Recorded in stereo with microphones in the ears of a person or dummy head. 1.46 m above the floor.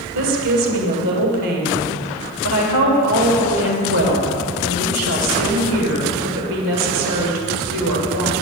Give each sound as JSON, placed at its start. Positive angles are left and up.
{"t": 0.1, "sound": "a woman speaking", "side_deg": -75, "distance_m": 1.2}